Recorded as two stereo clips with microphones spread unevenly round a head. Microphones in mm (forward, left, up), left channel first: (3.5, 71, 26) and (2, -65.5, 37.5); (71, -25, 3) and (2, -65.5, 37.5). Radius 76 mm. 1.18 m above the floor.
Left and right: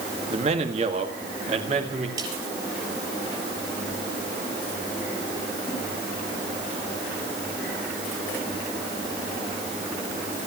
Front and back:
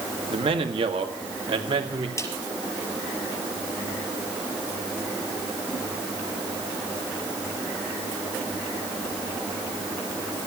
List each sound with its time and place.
0.3 s a man speaking: 140° right, 1.9 m; by 2.1 s 135° right, 3 m
2.2 s a snare drum: 25° right, 5 m